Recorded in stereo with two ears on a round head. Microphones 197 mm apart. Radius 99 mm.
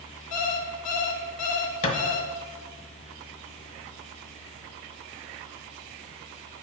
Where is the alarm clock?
80° left, 1.1 m.